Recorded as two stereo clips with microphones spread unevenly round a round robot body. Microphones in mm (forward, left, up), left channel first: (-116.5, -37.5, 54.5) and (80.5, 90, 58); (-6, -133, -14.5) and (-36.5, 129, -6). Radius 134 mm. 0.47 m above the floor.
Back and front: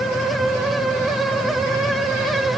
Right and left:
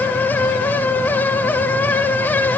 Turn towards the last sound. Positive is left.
No sound to turn to.